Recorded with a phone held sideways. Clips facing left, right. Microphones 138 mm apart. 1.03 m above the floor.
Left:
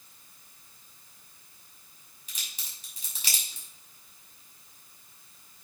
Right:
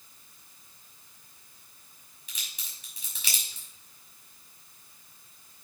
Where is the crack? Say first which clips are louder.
Even; 40° left (ahead or behind), 5.5 m.